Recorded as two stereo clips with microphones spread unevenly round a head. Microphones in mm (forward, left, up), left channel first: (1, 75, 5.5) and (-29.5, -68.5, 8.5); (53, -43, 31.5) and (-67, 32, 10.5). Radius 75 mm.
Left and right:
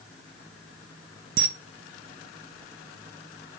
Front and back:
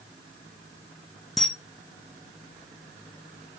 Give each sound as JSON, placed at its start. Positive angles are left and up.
{"t": 1.4, "sound": "a camera shutter", "azimuth_deg": -125, "distance_m": 0.5}